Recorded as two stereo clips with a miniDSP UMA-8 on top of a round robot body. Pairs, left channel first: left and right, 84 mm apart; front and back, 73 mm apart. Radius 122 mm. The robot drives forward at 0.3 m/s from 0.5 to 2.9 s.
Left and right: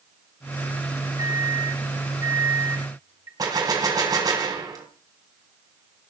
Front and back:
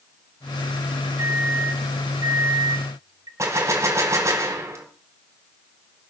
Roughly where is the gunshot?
Behind right.